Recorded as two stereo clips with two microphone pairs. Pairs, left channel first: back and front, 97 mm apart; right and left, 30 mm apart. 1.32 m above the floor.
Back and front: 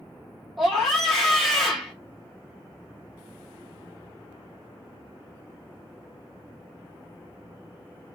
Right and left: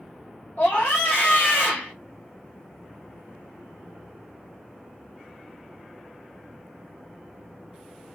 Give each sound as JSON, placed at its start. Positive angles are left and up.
{"t": 0.6, "sound": "a scream", "azimuth_deg": -90, "distance_m": 2.5}